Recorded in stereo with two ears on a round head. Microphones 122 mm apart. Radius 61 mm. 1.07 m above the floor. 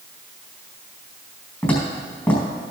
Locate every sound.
1.6 s footsteps: 15° left (ahead or behind), 4.5 m